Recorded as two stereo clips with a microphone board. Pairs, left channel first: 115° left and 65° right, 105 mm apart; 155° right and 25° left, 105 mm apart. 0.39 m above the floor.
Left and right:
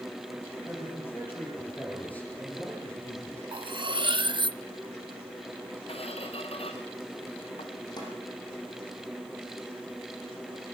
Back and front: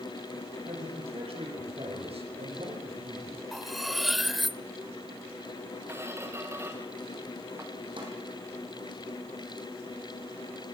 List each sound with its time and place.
0.6 s a man speaking: 45° left, 9.5 m; by 3.4 s 30° left, 9 m
3.5 s cutlery clinking: 65° right, 0.5 m
5.9 s a squeak: 90° left, 3 m
8.0 s a snare drum: 65° left, 9 m